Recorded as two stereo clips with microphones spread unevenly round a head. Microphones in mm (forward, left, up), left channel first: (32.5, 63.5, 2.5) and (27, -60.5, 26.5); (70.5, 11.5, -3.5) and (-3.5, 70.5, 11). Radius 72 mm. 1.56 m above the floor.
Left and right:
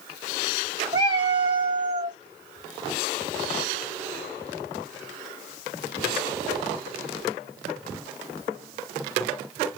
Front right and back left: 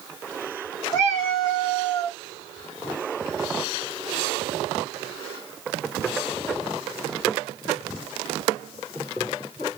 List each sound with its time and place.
0.9 s a cat meowing: 130° right, 1.6 m